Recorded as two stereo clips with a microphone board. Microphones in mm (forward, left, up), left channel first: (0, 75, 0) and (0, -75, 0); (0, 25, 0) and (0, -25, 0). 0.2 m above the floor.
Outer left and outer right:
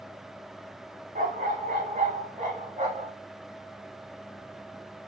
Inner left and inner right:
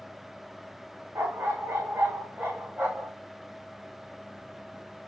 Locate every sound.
1.1 s a dog barking: 60° right (ahead or behind), 5 m; by 3.1 s 40° right (ahead or behind), 4.5 m